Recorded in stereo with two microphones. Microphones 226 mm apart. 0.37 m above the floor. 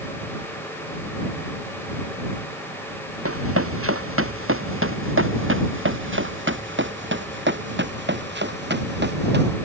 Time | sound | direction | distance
3.2 | running footsteps | 75° right (ahead or behind) | ?